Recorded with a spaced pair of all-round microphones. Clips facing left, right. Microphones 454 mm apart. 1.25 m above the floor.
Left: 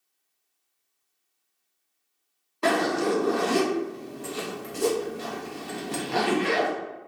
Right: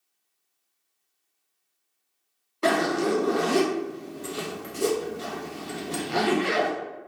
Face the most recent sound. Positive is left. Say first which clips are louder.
# even
turn(degrees=5)  # may be behind; listen again after turning